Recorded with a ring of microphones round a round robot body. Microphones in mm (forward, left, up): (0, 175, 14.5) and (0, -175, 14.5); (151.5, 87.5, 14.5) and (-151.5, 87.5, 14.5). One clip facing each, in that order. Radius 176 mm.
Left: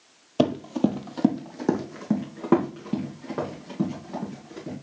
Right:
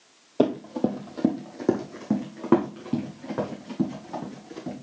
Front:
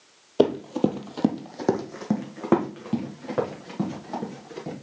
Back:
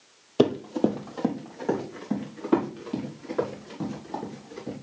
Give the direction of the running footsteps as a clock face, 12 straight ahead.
8 o'clock.